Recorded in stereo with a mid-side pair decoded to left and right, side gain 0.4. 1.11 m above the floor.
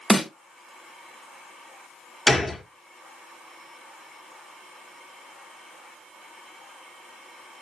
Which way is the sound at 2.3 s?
15° left.